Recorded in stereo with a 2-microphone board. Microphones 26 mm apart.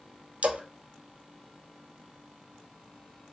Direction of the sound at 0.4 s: 65° right (ahead or behind).